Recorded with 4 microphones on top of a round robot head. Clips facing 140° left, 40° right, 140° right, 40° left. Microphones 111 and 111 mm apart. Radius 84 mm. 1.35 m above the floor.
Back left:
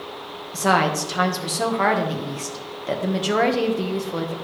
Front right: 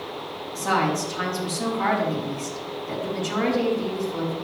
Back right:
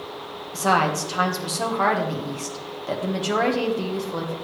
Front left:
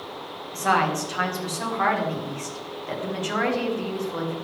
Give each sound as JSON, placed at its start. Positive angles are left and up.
{"t": 0.5, "sound": "a woman speaking", "azimuth_deg": 155, "distance_m": 1.5}